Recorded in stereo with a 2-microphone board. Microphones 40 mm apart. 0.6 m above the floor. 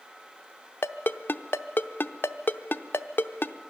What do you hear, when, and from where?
0.8 s a ringtone: 65° left (ahead or behind), 0.6 m